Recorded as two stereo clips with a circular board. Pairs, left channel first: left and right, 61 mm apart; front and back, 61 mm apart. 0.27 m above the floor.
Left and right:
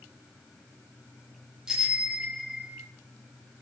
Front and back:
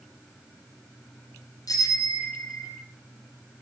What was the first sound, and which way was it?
A bicycle bell, 15° right.